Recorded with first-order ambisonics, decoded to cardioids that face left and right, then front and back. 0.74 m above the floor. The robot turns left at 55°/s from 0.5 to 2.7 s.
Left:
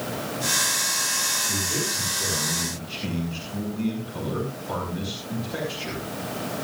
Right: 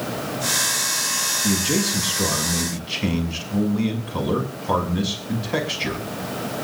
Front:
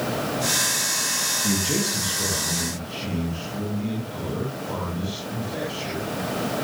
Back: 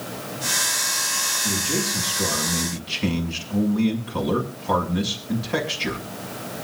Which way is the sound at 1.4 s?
60° right.